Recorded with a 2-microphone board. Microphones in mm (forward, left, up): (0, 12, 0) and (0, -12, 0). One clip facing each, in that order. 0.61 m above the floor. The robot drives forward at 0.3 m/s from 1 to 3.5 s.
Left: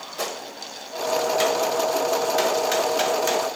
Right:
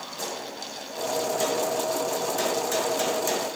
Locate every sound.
0.2 s a gunshot: 65° left (ahead or behind), 0.8 m; by 3.6 s 35° left (ahead or behind), 1.3 m